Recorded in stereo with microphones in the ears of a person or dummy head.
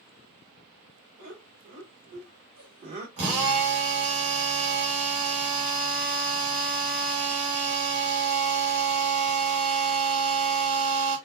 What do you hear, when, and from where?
1.2 s laughter: 50° right (ahead or behind), 2.5 m; by 3.1 s 30° right (ahead or behind), 0.7 m
3.2 s a drill: 40° right (ahead or behind), 1.7 m